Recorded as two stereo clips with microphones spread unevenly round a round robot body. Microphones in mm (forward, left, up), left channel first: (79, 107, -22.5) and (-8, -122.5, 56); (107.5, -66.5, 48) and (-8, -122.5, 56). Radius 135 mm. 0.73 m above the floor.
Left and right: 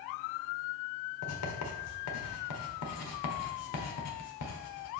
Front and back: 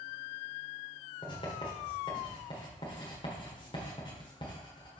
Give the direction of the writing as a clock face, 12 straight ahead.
9 o'clock.